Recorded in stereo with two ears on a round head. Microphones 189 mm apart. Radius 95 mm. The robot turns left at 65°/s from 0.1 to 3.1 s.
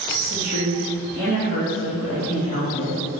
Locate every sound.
0.2 s a woman speaking: 55° right, 1.5 m; by 3.0 s 120° left, 1.5 m